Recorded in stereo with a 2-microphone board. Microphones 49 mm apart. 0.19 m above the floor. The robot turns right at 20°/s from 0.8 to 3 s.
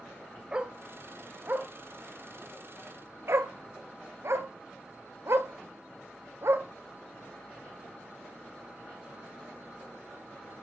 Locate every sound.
0.5 s a dog barking: 20° right (ahead or behind), 0.8 m; by 6.7 s 65° right (ahead or behind), 0.8 m